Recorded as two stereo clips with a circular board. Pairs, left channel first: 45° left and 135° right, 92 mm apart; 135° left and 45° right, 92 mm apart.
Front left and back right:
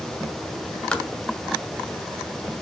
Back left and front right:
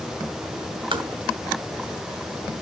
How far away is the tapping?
About 1.4 m.